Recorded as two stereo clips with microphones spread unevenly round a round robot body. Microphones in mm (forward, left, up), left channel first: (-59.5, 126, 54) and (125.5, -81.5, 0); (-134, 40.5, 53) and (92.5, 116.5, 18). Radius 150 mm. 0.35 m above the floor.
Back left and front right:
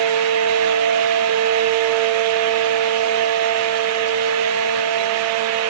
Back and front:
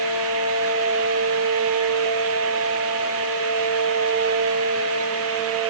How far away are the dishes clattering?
I don't hear dishes clattering.